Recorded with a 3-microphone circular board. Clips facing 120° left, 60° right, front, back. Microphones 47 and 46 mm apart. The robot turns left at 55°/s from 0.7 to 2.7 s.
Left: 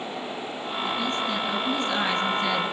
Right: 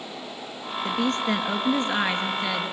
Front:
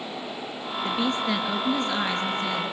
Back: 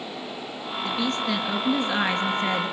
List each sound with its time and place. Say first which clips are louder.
0.8 s a woman speaking: right 3 dB, front 1 dB; 55° right, 3 m; by 2.7 s 155° right, 3 m